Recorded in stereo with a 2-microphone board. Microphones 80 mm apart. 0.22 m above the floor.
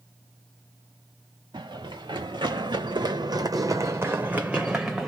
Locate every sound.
1.5 s running footsteps: 75° right (ahead or behind), 1.4 m; by 5.1 s 5° right (ahead or behind), 1.1 m